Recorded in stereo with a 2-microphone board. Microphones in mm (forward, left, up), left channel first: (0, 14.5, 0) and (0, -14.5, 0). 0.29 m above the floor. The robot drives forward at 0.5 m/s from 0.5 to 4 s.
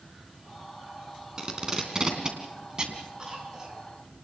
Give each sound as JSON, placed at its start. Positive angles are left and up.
{"t": 1.4, "sound": "tape being pulled", "side_deg": -25, "distance_m": 3.0}
{"t": 3.2, "sound": "a cough", "side_deg": -25, "distance_m": 4.0}